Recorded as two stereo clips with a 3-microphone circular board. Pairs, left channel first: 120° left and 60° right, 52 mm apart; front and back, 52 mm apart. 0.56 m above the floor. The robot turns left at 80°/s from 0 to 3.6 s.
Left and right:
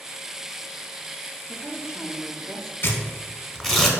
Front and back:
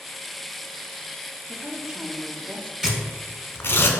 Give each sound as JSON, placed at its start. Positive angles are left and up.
{"t": 1.5, "sound": "a woman speaking", "azimuth_deg": -80, "distance_m": 0.7}
{"t": 2.8, "sound": "tearing paper", "azimuth_deg": 100, "distance_m": 0.7}